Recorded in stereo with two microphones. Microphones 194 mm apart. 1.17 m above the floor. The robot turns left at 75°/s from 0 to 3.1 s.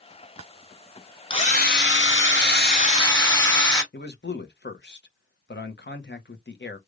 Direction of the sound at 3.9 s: 65° left (ahead or behind).